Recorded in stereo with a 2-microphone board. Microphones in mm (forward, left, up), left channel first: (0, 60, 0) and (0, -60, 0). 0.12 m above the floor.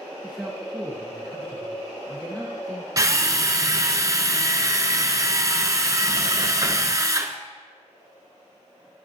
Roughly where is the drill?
Right.